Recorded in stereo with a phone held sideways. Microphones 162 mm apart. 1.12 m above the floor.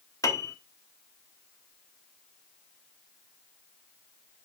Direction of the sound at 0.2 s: 20° left (ahead or behind).